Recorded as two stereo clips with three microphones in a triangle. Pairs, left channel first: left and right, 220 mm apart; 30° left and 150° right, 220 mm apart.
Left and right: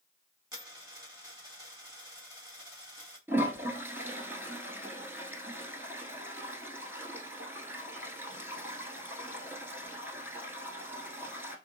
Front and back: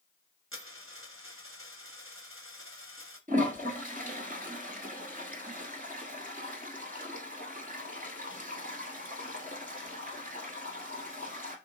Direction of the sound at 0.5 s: 165° right.